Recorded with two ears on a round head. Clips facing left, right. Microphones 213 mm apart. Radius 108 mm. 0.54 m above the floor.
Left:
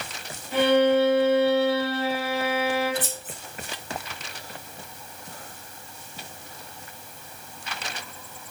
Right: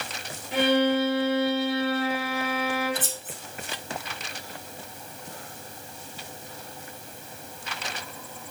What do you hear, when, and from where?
0.5 s a violin: 10° right (ahead or behind), 1.1 m
3.0 s scissors: 5° right (ahead or behind), 1.4 m